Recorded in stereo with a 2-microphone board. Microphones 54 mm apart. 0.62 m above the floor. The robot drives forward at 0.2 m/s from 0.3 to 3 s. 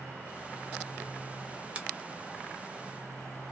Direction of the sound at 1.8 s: 20° right (ahead or behind).